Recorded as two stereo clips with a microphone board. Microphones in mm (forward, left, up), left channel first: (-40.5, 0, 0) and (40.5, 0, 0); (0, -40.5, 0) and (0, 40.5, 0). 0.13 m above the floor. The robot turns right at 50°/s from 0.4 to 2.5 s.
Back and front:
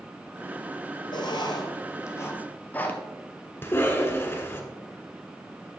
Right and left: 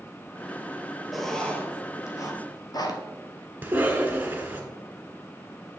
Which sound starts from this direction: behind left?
A cough, at 3.6 s.